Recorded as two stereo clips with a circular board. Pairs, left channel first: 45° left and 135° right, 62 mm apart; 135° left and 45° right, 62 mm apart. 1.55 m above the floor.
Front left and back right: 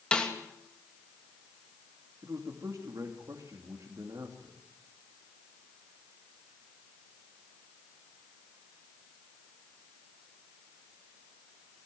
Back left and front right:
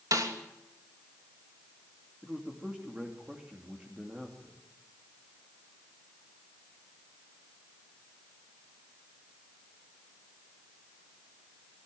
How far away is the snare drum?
About 3 m.